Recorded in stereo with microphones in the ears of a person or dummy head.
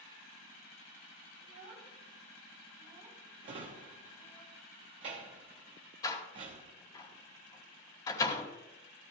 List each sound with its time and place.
1.4 s a child speaking: 45° right (ahead or behind), 3.5 m; by 4.4 s 20° left (ahead or behind), 1.9 m
3.4 s a drawer: 30° right (ahead or behind), 0.9 m
6.0 s a door slam: 25° left (ahead or behind), 2 m